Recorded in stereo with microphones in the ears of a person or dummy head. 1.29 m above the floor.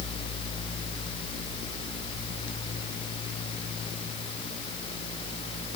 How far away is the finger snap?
I don't hear a finger snap.